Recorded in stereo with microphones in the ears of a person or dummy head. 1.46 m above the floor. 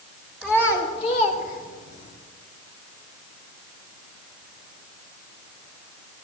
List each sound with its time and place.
0.4 s a child speaking: 5° left (ahead or behind), 2 m; by 2.1 s 60° left (ahead or behind), 3 m